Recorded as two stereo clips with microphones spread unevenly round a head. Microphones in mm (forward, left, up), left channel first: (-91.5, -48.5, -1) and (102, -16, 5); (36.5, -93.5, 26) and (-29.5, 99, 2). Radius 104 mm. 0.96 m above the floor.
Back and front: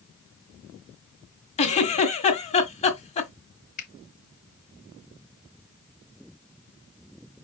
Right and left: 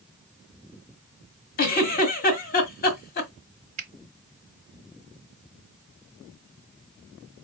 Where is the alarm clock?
No alarm clock in this recording.